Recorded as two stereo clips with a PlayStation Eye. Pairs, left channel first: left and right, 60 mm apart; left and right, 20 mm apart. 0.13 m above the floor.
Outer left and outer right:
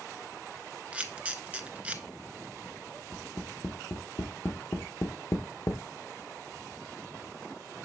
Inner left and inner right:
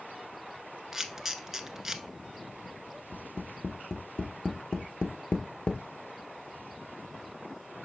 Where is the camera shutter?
20° right (ahead or behind), 0.5 m.